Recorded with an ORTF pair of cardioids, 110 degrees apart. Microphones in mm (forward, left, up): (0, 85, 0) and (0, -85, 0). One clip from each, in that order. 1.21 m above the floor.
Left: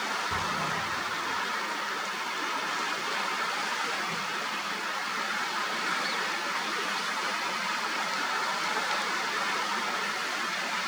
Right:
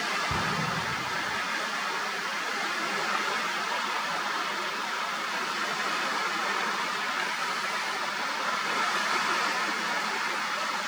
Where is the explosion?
65° right, 3 m.